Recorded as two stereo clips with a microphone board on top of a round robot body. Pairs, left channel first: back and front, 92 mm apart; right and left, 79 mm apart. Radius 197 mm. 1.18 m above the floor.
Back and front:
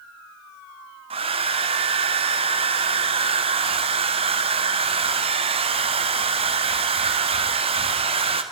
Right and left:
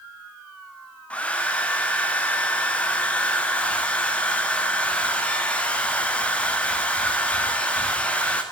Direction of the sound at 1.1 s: 15° right.